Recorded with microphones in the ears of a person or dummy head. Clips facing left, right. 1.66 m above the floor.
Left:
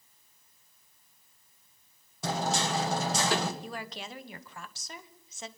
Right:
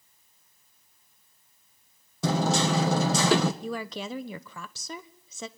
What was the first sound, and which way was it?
Hammering, 65° right (ahead or behind).